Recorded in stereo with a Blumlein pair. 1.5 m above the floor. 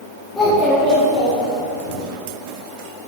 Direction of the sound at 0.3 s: 20° left.